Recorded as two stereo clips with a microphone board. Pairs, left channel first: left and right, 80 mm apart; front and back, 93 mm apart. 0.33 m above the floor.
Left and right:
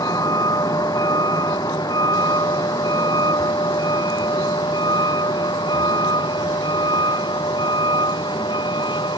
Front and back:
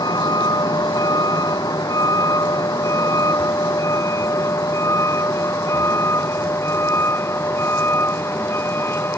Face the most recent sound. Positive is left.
turn(degrees=65)